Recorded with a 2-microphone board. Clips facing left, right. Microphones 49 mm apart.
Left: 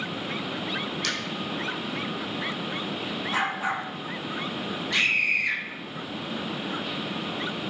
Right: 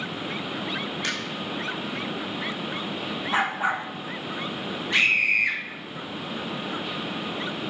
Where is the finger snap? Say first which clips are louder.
Right 1 dB; 20° right (ahead or behind), 7 m.